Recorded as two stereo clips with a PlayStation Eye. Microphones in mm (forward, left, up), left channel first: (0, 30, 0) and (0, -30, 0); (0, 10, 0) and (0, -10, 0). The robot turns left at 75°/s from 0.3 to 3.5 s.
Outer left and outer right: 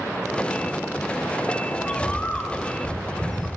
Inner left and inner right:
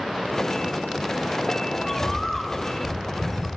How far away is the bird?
About 0.6 m.